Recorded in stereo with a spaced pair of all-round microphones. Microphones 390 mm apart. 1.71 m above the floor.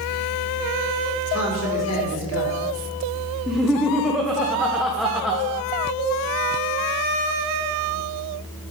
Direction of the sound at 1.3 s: 40° left (ahead or behind).